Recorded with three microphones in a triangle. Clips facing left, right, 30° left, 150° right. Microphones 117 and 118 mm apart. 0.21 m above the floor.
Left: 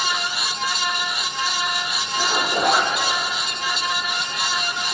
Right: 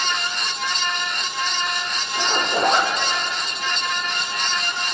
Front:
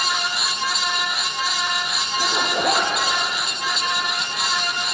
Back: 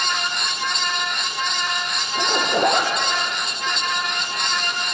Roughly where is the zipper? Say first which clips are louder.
Even, back 3 dB; behind.